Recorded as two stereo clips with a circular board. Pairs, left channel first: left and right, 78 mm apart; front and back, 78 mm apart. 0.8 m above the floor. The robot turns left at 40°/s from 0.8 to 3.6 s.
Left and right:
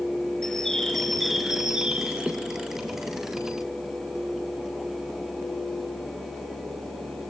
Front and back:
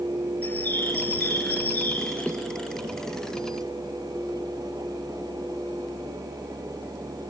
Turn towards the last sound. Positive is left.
turn(degrees=-90)